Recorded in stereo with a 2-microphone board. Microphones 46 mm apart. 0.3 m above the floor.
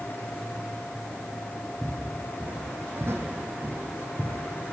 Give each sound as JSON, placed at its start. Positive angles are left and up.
{"t": 1.8, "sound": "footsteps", "side_deg": -25, "distance_m": 1.4}